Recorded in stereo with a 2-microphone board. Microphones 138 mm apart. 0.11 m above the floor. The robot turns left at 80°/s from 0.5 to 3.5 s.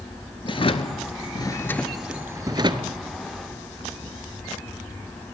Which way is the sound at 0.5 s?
40° left (ahead or behind).